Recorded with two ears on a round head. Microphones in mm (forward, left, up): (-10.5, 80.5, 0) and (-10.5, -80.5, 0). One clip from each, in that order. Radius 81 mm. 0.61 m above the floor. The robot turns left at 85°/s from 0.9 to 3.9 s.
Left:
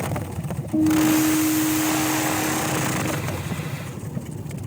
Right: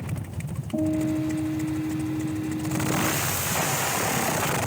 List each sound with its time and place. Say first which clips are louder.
0.7 s a guitar: left 7 dB; 135° left, 1.4 m; by 3.1 s 50° right, 1.4 m